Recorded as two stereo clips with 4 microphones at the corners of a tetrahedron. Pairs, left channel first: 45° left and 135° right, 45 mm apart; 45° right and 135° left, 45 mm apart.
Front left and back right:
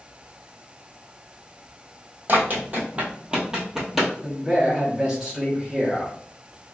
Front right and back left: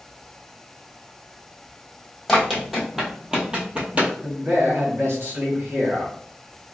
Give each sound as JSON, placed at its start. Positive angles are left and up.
{"t": 2.3, "sound": "running footsteps", "azimuth_deg": -130, "distance_m": 1.4}
{"t": 4.2, "sound": "a man speaking", "azimuth_deg": 145, "distance_m": 1.3}